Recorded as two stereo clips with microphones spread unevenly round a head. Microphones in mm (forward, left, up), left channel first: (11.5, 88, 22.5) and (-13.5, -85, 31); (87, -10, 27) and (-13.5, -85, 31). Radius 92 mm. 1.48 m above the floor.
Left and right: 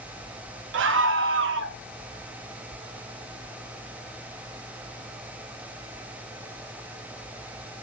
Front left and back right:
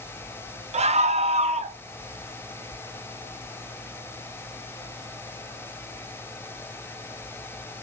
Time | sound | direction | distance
0.7 | a scream | 110° right | 0.8 m